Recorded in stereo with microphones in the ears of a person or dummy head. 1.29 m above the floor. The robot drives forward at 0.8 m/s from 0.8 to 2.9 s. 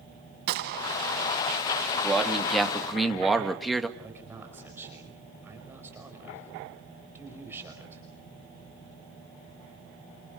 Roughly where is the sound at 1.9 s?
Centre.